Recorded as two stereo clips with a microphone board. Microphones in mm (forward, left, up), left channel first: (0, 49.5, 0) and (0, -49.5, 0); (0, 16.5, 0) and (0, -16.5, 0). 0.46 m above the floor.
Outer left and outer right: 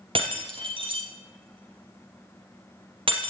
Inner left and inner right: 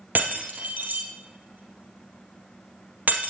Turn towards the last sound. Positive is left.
turn(degrees=-65)  # may be behind; listen again after turning